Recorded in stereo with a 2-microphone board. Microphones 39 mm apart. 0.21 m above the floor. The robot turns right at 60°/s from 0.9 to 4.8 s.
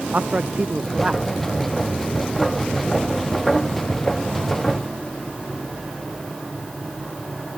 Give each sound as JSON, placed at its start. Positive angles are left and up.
{"t": 0.1, "sound": "a man speaking", "side_deg": -30}